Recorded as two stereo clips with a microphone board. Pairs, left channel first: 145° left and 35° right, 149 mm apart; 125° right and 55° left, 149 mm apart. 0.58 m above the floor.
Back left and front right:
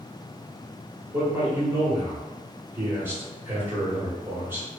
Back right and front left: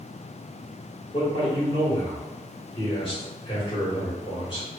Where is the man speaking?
100° right, 1.2 m.